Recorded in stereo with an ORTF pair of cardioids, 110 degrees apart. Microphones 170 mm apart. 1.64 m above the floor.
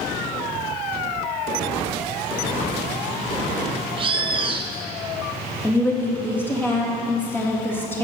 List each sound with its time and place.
4.0 s a bird: 30° right, 1.0 m
5.6 s a woman speaking: 10° left, 3.5 m